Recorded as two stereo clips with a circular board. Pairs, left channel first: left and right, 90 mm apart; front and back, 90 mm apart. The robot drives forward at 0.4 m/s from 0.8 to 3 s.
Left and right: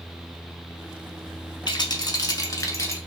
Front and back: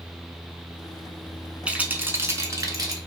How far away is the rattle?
About 0.6 m.